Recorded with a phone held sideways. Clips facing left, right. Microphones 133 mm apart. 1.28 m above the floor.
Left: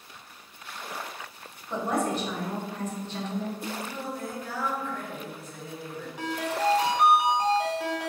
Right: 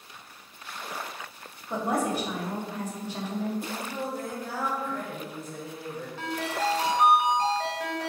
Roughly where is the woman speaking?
Centre.